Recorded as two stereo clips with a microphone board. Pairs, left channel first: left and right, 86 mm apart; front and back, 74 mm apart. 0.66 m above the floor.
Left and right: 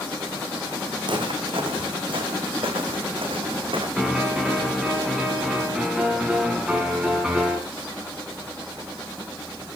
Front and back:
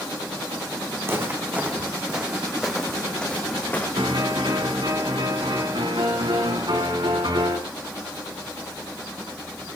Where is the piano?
170° right, 5 m.